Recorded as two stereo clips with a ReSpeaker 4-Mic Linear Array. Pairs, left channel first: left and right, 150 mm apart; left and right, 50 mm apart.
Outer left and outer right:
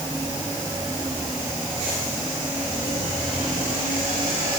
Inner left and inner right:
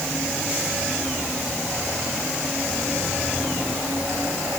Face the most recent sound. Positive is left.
No sound to turn to.